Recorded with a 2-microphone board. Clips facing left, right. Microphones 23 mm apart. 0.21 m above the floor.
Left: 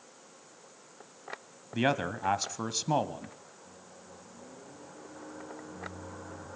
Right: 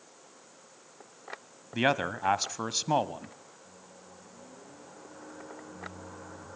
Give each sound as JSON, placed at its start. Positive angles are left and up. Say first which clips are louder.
{"t": 1.7, "sound": "a man speaking", "louder": "right 2 dB", "side_deg": -15, "distance_m": 1.0}
{"t": 3.6, "sound": "a microwave", "louder": "left 1 dB", "side_deg": 0, "distance_m": 4.0}